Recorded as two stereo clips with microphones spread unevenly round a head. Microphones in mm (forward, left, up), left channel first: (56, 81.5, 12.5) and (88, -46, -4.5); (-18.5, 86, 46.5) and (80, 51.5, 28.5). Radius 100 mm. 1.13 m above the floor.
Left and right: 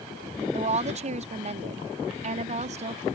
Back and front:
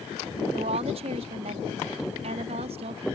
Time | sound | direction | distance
0.5 | a woman speaking | 50° right | ?